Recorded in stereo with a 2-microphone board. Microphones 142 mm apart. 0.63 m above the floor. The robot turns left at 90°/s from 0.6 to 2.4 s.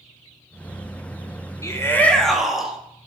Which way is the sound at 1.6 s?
20° left (ahead or behind).